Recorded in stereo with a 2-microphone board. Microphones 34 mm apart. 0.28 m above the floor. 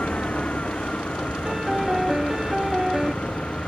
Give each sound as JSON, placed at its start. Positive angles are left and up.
{"t": 0.0, "sound": "an engine running", "side_deg": 40}
{"t": 1.4, "sound": "a piano", "side_deg": -20}